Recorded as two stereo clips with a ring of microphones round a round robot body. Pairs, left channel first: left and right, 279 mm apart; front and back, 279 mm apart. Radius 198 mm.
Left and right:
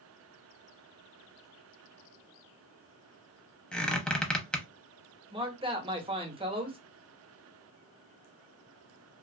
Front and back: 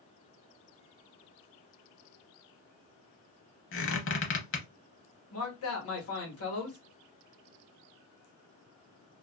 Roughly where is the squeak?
Ahead.